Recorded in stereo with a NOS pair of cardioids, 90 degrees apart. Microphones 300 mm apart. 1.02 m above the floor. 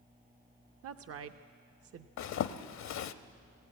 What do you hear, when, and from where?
0.8 s a woman speaking: 50° right, 0.8 m
2.2 s a zipper: 70° left, 0.9 m